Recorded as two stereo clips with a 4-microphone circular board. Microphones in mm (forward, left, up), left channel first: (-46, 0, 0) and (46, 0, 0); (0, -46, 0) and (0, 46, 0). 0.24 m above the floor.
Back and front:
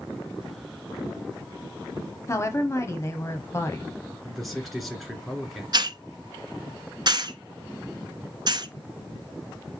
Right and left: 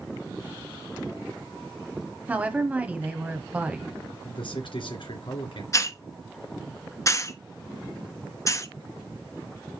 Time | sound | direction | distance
2.3 | a woman speaking | 150° left | 1.1 m
4.2 | a man speaking | 90° right | 2.5 m
5.7 | a hiss | 35° right | 0.7 m